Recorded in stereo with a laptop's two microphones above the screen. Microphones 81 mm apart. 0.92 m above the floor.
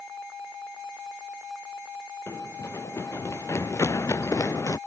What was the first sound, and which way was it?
Running footsteps, 35° left (ahead or behind).